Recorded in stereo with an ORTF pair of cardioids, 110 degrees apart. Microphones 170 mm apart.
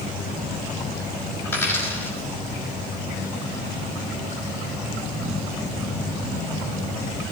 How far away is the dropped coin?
About 6 m.